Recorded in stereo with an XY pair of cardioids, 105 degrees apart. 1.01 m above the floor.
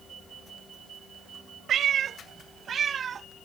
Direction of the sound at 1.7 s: 65° right.